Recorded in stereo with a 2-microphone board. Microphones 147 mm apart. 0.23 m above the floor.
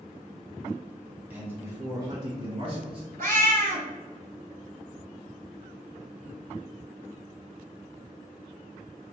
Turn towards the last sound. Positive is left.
turn(degrees=-80)